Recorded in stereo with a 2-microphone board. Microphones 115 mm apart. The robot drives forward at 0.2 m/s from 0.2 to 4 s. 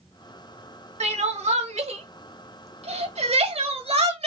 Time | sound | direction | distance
1.0 | crying | 80° right | 1.1 m